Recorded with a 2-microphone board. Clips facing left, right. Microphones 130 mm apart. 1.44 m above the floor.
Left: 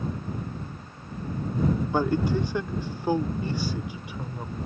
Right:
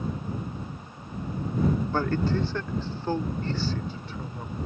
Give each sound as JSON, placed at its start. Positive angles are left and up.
{"t": 1.9, "sound": "a man speaking", "side_deg": 15}